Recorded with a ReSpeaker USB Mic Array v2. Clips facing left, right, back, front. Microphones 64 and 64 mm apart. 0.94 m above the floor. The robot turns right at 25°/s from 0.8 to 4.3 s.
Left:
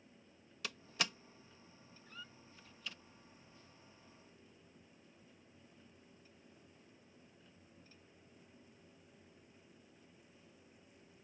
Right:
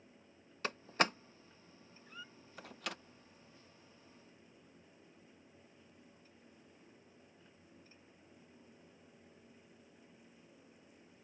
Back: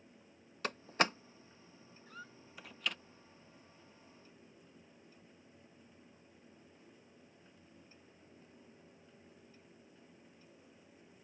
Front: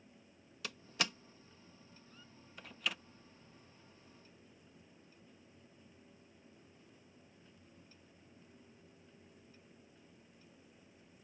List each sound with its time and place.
0.6 s a door slam: 140° right; by 3.0 s 85° right
2.1 s a squeak: 175° right; by 2.4 s 165° right